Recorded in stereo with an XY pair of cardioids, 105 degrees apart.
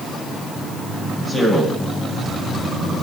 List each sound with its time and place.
1.2 s a man speaking: 10° right, 8.5 m